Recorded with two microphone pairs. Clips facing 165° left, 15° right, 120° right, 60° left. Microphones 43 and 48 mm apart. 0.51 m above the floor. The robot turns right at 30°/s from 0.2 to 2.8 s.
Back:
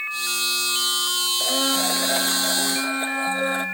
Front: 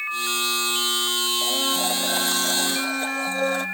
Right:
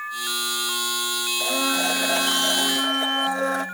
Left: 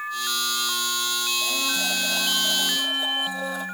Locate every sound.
1.4 s a blender: 165° right, 1.2 m; by 3.6 s 120° right, 1.2 m